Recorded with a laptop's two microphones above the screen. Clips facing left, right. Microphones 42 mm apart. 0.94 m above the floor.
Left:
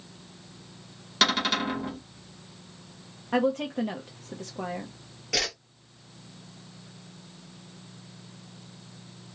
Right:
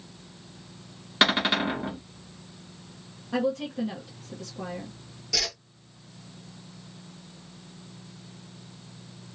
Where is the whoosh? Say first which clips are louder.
Left 2 dB; 40° left (ahead or behind), 1.1 m.